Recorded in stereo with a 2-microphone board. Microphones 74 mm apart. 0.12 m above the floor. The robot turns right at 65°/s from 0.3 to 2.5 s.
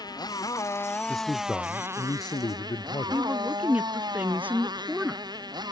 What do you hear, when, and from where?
0.0 s a motorcycle: 110° left; by 5.7 s 105° right
1.1 s a man speaking: 5° right; by 3.2 s 85° left
3.1 s a woman speaking: 20° right (ahead or behind)